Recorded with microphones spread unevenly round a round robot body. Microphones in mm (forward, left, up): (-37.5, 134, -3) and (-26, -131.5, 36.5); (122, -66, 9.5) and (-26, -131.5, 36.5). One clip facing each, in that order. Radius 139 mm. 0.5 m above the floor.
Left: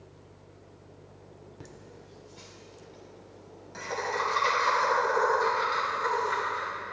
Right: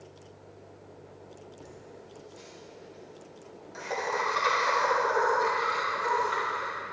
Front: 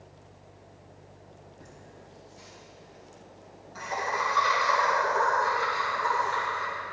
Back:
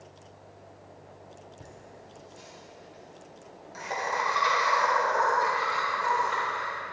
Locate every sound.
1.6 s laughter: 135° left, 1.2 m; by 6.7 s 175° right, 5 m